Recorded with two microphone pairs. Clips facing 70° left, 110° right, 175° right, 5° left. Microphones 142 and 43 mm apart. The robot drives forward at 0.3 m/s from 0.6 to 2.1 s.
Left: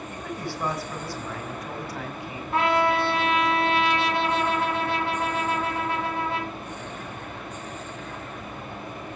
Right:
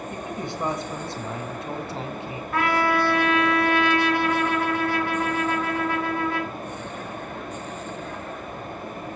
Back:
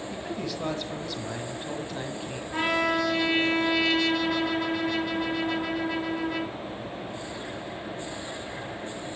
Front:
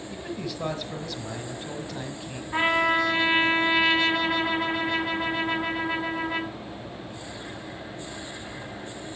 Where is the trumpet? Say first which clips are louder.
Left 1 dB, front 3 dB; 55° left, 1.8 m.